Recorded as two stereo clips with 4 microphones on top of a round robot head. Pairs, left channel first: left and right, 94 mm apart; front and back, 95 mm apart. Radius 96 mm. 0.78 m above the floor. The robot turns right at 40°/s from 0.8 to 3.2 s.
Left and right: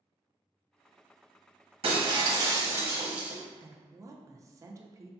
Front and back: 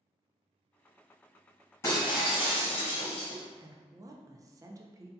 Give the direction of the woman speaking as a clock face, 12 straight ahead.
5 o'clock.